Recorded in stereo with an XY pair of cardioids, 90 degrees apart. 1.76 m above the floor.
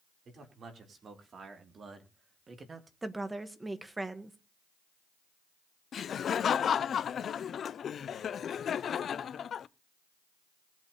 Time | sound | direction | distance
0.2 | a man speaking | 55° right | 4.5 m
3.0 | a woman speaking | 15° right | 1.7 m
5.9 | laughter | 60° left | 0.6 m